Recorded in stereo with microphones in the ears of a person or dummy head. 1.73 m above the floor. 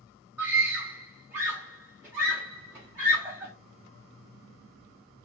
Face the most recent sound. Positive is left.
turn(degrees=-5)  # may be behind; listen again after turning